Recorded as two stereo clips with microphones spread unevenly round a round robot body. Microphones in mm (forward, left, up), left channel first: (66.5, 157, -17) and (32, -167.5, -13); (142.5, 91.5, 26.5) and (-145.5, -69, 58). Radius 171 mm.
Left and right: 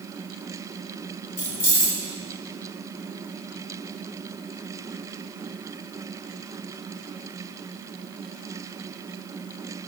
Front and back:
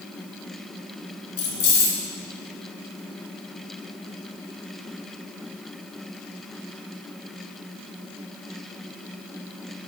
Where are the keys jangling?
40° left, 3 m.